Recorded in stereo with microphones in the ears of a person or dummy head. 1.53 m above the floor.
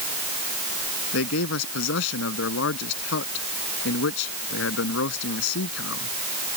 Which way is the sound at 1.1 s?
80° left.